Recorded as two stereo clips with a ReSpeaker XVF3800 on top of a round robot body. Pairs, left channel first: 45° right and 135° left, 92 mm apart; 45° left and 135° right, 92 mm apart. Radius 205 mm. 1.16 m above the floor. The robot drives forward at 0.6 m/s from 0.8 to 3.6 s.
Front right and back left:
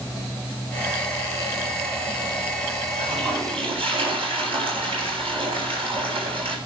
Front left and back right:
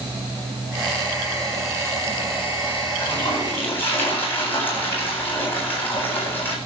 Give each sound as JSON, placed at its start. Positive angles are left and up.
{"t": 3.0, "sound": "a toilet flushing", "azimuth_deg": 115, "distance_m": 8.5}